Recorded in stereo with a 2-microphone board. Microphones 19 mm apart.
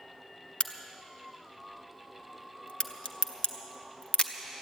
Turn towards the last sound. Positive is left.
turn(degrees=70)  # may be behind; listen again after turning